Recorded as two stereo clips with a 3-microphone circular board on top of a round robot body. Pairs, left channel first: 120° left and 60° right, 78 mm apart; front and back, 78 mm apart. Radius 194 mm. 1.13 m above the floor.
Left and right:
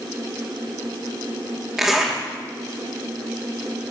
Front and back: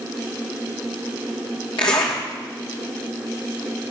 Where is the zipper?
20° left, 0.8 m.